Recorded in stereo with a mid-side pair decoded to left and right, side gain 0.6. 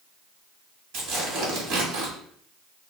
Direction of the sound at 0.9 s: 70° right.